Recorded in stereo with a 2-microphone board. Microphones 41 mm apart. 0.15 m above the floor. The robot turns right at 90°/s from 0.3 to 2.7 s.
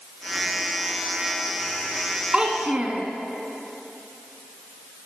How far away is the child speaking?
About 0.6 m.